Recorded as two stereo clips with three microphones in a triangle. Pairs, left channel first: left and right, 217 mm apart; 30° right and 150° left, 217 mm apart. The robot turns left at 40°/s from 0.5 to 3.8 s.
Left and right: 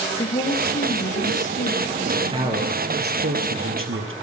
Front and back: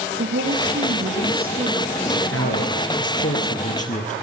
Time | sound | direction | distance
0.2 | a woman speaking | 145° left | 4 m
2.1 | a man speaking | 15° right | 4 m